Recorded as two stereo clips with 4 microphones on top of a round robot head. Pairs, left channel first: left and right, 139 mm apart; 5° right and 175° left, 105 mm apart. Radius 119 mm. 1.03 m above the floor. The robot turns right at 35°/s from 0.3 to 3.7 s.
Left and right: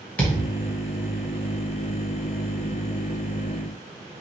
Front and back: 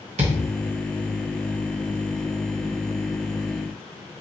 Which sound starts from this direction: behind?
A thud, at 0.2 s.